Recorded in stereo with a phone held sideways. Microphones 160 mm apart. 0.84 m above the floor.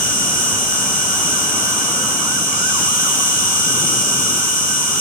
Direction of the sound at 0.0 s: 60° left (ahead or behind).